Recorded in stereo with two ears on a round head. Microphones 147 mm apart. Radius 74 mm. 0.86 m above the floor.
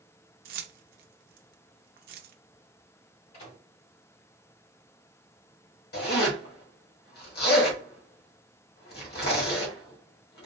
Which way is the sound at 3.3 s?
45° left (ahead or behind).